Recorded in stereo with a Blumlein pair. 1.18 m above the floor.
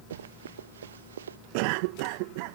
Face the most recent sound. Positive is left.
turn(degrees=-45)